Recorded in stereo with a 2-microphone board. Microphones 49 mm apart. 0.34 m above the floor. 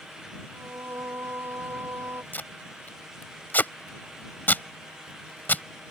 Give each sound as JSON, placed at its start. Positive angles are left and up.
{"t": 0.5, "sound": "singing", "side_deg": -55}
{"t": 2.3, "sound": "tape being pulled", "side_deg": 40}